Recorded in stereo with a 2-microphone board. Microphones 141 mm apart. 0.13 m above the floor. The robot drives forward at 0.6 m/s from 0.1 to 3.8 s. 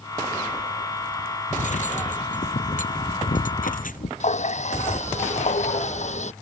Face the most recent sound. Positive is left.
turn(degrees=55)  # may be behind; listen again after turning